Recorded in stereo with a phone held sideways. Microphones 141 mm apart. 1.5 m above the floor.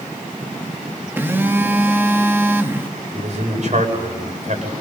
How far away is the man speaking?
About 7.5 m.